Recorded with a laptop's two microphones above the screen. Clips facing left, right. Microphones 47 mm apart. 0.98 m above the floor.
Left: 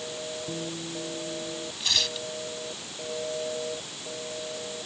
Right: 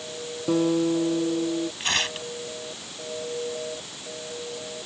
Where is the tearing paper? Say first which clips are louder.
Right 3 dB; 40° right (ahead or behind).